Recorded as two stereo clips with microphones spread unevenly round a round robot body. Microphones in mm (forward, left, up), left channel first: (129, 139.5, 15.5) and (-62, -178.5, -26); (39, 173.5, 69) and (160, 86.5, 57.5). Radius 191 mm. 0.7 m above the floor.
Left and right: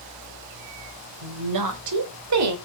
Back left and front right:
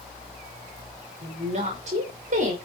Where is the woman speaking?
90° right, 3.5 m; by 2.6 s 75° right, 3 m.